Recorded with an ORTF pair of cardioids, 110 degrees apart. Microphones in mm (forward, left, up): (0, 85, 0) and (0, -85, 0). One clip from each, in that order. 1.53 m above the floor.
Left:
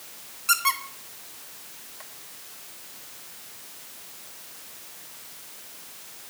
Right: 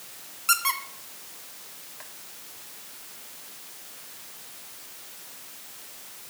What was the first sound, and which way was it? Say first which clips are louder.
A squeak: left 1 dB; 10° right.